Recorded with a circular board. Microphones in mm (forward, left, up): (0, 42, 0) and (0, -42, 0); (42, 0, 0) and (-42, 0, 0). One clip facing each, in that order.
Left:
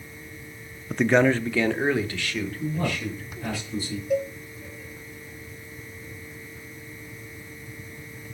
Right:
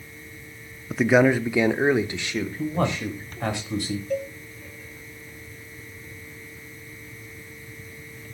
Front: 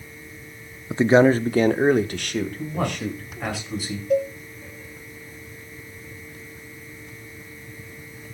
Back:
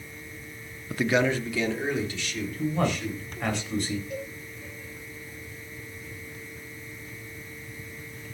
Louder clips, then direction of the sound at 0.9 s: Right 2 dB, front 9 dB; straight ahead.